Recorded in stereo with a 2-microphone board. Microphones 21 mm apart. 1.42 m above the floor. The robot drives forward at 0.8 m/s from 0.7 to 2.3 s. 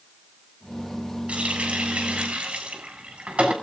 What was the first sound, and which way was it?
A running tap, 75° right (ahead or behind).